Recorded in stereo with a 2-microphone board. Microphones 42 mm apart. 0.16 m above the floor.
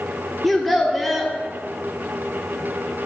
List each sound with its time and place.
0.4 s a child speaking: 5° left (ahead or behind), 1.1 m